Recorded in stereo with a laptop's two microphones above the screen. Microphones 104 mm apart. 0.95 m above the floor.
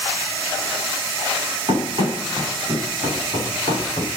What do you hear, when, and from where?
1.7 s running footsteps: 55° right (ahead or behind), 6.5 m; by 4.1 s 70° right (ahead or behind), 5 m